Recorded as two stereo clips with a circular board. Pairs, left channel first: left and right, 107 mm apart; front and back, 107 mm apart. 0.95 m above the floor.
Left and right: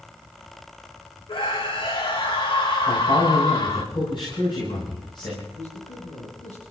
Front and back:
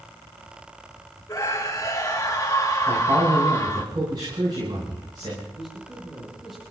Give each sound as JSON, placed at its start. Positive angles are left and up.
{"t": 1.3, "sound": "a scream", "azimuth_deg": 55, "distance_m": 2.0}
{"t": 2.9, "sound": "a man speaking", "azimuth_deg": 130, "distance_m": 8.0}
{"t": 5.5, "sound": "a man speaking", "azimuth_deg": 90, "distance_m": 9.0}